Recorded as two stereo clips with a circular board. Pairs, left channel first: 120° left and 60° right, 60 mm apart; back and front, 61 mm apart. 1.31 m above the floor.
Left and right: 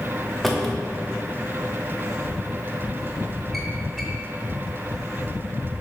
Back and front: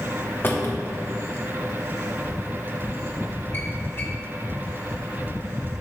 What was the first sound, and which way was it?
A drawer, 155° right.